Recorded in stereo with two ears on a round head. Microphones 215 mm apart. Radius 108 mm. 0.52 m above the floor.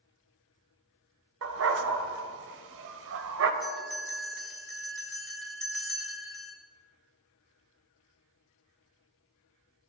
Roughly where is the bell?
Centre.